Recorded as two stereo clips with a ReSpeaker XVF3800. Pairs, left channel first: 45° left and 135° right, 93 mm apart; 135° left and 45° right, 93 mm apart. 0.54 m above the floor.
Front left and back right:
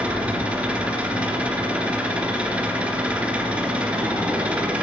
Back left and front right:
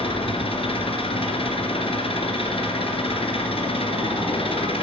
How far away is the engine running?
About 2.5 m.